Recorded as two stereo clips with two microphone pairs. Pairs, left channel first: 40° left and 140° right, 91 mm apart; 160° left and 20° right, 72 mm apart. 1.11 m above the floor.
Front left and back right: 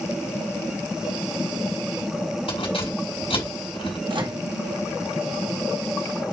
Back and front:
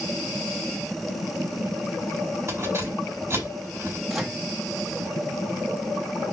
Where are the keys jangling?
35° left, 4.5 m.